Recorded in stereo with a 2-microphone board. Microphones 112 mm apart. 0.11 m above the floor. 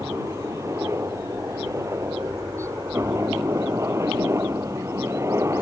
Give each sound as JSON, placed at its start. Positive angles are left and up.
{"t": 0.0, "sound": "a helicopter", "side_deg": -25}